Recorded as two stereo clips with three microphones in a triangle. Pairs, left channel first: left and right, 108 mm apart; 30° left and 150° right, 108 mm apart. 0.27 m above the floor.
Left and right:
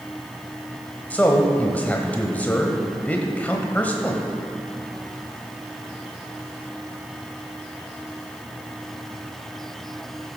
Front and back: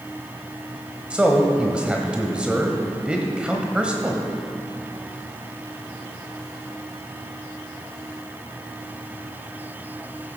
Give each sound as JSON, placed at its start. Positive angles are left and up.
{"t": 1.1, "sound": "a man speaking", "azimuth_deg": 145, "distance_m": 1.0}